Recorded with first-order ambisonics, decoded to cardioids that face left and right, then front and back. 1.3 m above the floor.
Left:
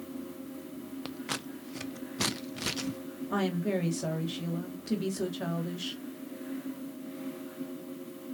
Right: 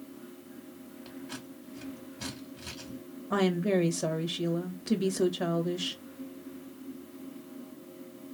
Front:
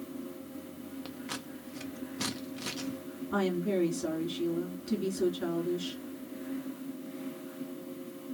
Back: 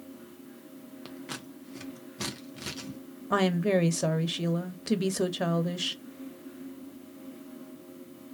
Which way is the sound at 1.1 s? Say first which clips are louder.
Left 7 dB, back 1 dB; 90° left.